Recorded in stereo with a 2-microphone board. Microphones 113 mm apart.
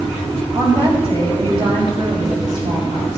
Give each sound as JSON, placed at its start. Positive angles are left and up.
{"t": 0.6, "sound": "a woman speaking", "side_deg": -55, "distance_m": 2.5}